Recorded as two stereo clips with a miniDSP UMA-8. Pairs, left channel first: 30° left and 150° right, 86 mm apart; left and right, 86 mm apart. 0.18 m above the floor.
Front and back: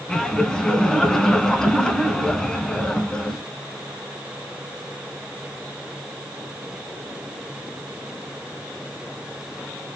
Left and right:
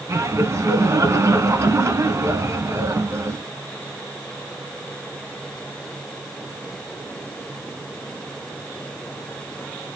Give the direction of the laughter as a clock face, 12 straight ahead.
2 o'clock.